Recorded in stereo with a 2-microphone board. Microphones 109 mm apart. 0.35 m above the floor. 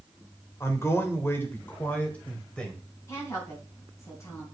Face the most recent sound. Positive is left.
turn(degrees=25)  # may be behind; listen again after turning